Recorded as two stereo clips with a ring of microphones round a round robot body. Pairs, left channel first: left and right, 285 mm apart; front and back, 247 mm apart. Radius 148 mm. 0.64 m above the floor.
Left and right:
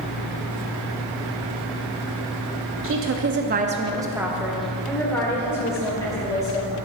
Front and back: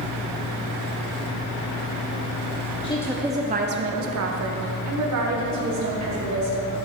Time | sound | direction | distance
2.8 | a woman speaking | 65° right | 0.8 m